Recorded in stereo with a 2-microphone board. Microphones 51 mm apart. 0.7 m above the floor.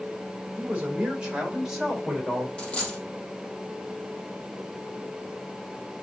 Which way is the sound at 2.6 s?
20° left (ahead or behind).